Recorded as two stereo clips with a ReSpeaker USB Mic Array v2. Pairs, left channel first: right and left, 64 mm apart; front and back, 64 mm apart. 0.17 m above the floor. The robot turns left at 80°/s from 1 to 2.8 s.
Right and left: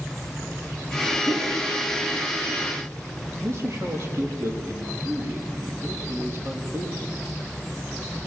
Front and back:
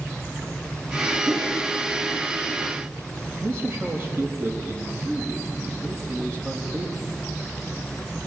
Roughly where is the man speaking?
Behind left.